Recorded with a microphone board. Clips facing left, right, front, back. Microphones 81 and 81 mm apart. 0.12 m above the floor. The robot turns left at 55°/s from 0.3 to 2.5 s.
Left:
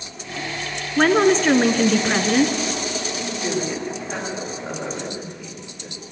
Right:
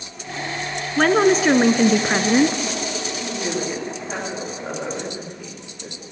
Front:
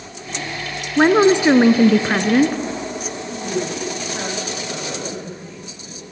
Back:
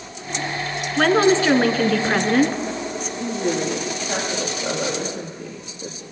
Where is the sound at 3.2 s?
160° right, 7 m.